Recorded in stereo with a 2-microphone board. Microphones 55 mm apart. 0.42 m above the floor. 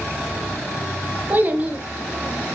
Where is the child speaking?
35° right (ahead or behind), 0.6 m.